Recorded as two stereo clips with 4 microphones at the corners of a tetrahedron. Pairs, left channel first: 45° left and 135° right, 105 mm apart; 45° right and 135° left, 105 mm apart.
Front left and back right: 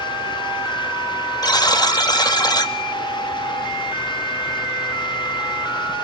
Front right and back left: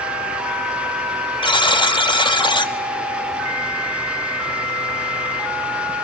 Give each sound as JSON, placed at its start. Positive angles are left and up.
{"t": 1.4, "sound": "a buzzer", "azimuth_deg": -5, "distance_m": 1.6}